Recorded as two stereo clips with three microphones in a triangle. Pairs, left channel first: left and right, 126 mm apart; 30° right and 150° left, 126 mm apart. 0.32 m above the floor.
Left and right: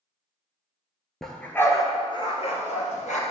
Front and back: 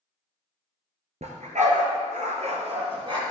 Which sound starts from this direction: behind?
A dog barking, at 1.2 s.